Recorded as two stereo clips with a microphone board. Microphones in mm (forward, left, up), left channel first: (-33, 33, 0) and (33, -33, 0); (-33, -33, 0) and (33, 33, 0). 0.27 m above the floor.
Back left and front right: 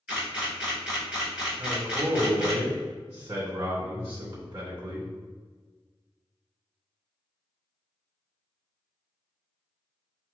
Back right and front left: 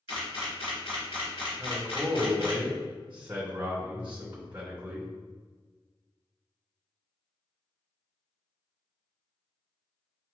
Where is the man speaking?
20° right, 1.8 m.